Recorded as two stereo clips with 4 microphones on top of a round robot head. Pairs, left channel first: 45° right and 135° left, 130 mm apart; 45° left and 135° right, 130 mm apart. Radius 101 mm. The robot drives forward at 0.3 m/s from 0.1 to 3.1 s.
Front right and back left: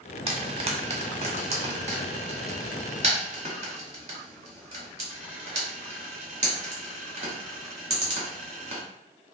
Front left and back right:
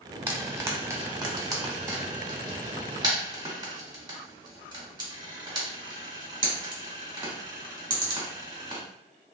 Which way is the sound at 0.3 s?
150° left.